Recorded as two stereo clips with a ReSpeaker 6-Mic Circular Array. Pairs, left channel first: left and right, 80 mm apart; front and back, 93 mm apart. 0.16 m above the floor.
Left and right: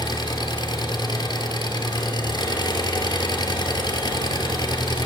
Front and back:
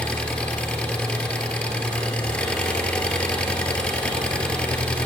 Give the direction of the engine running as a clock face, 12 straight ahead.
9 o'clock.